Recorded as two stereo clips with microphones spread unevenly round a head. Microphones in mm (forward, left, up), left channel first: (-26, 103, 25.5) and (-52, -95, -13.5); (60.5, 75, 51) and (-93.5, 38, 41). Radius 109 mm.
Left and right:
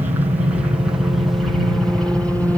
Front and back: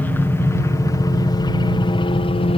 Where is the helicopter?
55° right; by 2.6 s 10° right.